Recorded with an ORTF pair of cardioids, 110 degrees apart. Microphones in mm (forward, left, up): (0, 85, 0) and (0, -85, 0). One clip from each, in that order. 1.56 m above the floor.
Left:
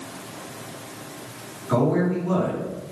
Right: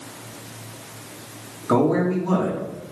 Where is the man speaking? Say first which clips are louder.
Right 2 dB; 60° right, 3 m.